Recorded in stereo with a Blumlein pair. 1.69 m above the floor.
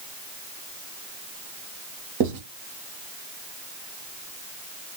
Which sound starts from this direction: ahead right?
Writing, at 2.2 s.